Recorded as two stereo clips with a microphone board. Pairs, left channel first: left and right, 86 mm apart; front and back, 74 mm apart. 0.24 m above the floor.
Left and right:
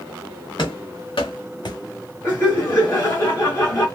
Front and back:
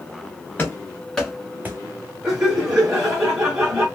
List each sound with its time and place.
0.6 s running footsteps: 65° left, 1.3 m; by 1.8 s 130° left, 0.6 m
2.2 s laughter: 105° left, 1.4 m